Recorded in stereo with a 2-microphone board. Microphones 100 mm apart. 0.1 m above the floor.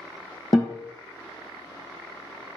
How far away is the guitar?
About 0.9 m.